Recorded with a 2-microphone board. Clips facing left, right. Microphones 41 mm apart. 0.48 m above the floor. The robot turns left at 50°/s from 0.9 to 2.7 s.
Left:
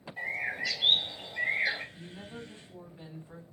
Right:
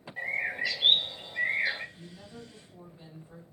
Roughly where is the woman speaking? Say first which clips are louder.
Left 3 dB; behind left.